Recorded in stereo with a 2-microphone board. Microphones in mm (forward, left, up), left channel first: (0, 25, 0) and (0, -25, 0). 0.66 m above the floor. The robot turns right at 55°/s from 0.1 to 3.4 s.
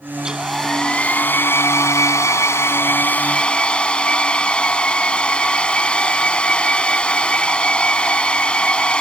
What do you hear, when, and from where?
0.2 s a hair dryer: 20° right; by 9.0 s 160° left